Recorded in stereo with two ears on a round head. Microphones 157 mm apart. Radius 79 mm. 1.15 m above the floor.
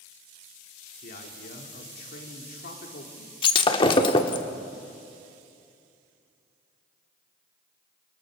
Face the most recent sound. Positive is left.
turn(degrees=30)  # may be behind; listen again after turning